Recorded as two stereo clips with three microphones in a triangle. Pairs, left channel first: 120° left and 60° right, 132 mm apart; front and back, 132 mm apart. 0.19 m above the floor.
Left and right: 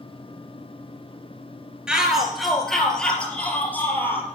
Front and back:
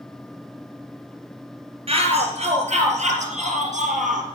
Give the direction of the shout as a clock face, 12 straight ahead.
5 o'clock.